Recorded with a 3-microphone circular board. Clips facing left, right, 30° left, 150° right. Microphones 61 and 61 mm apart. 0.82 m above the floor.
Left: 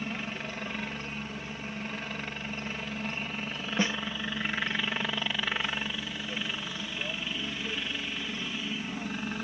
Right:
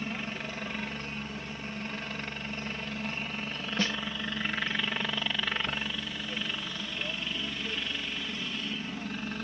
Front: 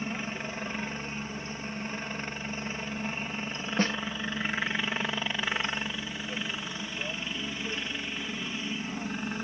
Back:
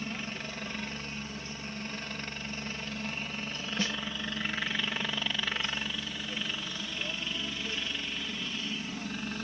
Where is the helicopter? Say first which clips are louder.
Even, front 3 dB; 5° left; by 9.4 s 25° left.